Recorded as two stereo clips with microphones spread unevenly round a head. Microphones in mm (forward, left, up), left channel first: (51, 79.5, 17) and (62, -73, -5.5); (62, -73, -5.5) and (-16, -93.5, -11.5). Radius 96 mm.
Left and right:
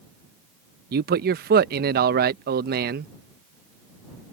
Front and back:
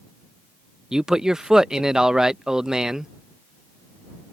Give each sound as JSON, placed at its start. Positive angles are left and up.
{"t": 0.9, "sound": "a man speaking", "azimuth_deg": -85}